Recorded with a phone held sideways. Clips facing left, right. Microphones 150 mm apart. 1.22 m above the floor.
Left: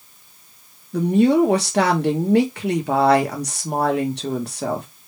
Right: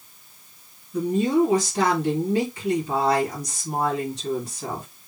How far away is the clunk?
I don't hear a clunk.